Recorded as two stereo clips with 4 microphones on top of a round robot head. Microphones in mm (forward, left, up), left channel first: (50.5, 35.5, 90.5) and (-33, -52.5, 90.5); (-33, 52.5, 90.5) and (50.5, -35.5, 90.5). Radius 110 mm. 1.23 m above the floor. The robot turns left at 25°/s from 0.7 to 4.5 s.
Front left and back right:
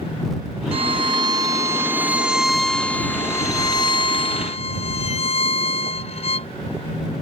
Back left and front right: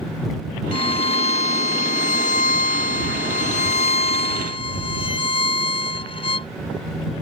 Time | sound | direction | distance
0.7 | a violin | 175° right | ?